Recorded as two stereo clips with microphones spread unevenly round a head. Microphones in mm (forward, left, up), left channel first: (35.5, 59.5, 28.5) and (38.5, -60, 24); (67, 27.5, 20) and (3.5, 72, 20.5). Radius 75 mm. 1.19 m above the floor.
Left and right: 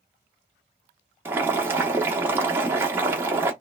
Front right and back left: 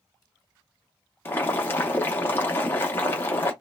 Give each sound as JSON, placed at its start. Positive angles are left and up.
{"t": 1.2, "sound": "boiling", "azimuth_deg": -35, "distance_m": 0.6}